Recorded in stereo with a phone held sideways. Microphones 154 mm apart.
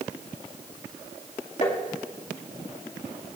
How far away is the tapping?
About 2.5 m.